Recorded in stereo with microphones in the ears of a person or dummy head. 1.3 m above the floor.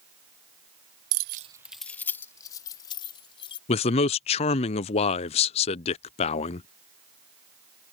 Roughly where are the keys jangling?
Right.